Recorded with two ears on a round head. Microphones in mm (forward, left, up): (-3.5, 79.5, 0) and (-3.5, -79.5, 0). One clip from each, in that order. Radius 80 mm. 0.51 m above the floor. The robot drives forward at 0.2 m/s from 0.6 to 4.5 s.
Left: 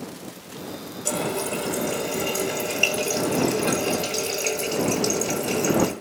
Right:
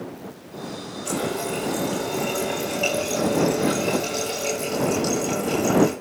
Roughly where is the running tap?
Left.